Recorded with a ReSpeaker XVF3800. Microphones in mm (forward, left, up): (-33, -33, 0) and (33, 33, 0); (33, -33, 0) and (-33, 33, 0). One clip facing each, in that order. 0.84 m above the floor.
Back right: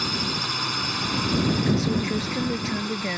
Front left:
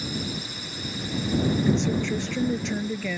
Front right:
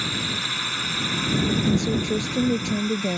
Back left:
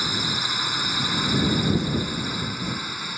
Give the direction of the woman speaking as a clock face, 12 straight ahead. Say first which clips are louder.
Even, front right 2 dB; 2 o'clock.